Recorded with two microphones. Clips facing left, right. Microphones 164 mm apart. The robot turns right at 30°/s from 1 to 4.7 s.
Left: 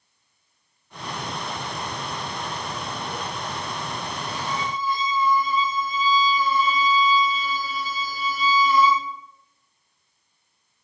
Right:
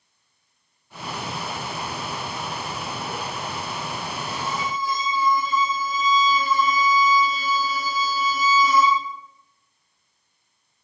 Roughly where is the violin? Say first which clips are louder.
Even; right.